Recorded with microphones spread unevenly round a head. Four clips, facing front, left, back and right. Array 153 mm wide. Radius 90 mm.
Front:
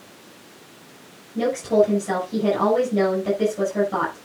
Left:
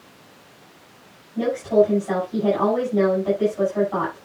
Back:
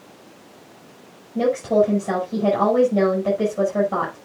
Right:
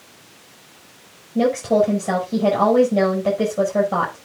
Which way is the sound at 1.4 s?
95° right.